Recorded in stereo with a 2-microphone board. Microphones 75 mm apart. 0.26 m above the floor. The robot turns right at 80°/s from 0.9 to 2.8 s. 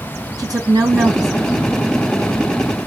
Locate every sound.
0.4 s a woman speaking: 95° right, 2 m; by 1.8 s 25° right, 2 m